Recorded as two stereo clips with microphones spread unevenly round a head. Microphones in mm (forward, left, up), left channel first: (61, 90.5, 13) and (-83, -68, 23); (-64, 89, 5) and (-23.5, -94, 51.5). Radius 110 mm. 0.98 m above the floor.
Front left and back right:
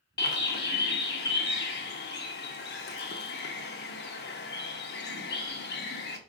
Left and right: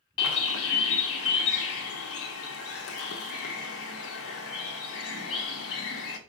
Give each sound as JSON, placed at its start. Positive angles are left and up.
{"t": 0.2, "sound": "a bird", "azimuth_deg": 95, "distance_m": 0.8}